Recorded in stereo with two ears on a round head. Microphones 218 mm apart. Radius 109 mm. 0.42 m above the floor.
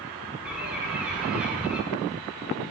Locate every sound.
0.5 s a bird: 5° right (ahead or behind), 1.2 m